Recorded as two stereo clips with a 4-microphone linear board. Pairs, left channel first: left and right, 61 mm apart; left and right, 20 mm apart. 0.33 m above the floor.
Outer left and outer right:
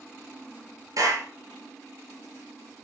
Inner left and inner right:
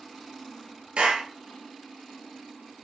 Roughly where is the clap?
Right.